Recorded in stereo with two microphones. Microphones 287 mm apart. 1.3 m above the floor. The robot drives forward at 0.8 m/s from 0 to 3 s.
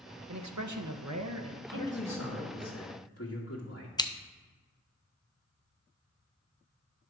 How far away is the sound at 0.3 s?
About 0.9 m.